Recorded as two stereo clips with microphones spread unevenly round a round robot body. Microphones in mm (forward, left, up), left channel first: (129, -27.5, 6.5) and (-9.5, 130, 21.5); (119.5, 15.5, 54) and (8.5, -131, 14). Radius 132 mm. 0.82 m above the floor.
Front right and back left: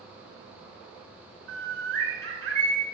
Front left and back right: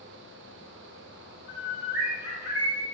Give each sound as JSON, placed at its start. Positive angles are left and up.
{"t": 1.5, "sound": "a bird", "azimuth_deg": 115, "distance_m": 2.0}